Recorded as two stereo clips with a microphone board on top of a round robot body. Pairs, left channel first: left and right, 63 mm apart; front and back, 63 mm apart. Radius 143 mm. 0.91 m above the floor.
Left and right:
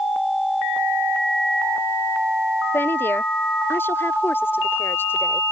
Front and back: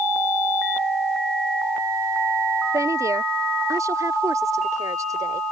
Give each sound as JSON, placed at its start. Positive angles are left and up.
{"t": 2.7, "sound": "a woman speaking", "azimuth_deg": 145}